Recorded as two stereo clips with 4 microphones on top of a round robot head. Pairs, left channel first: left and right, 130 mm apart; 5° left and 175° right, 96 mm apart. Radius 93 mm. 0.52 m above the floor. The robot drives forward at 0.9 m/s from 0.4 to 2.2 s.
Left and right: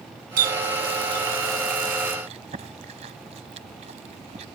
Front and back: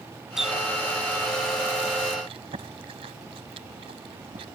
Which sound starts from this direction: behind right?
Chewing, at 2.3 s.